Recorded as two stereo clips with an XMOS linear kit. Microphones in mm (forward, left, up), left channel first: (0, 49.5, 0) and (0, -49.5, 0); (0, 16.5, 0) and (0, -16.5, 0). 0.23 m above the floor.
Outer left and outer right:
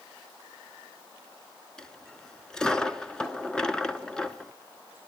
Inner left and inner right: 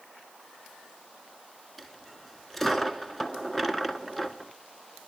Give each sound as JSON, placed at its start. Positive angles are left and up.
{"t": 1.8, "sound": "a dropped coin", "side_deg": 10, "distance_m": 1.3}